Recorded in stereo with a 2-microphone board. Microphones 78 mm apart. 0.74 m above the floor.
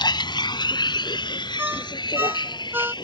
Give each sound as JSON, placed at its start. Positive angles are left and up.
{"t": 0.0, "sound": "a vehicle", "side_deg": 85}
{"t": 1.6, "sound": "a ringtone", "side_deg": -30}